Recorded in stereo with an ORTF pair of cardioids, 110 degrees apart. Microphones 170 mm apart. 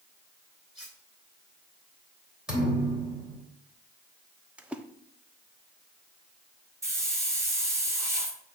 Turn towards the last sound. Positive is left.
turn(degrees=-15)